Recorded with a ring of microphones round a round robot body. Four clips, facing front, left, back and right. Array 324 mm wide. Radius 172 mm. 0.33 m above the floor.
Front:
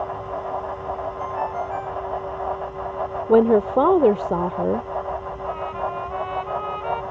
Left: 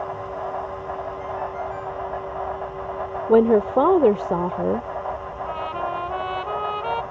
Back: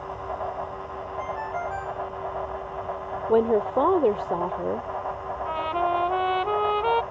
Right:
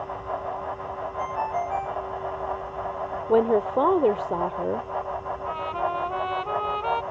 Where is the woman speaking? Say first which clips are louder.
Left 5 dB, front 5 dB; 45° left.